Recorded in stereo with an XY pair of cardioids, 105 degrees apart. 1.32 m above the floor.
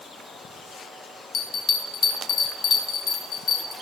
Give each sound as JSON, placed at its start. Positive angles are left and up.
{"t": 1.3, "sound": "a bell", "azimuth_deg": 60, "distance_m": 4.0}